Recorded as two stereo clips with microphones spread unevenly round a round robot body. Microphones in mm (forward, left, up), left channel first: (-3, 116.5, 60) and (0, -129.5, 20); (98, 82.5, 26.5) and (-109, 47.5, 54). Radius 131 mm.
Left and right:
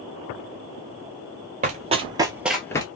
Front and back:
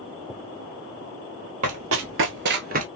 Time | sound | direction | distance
1.6 | running footsteps | 155° right | 0.9 m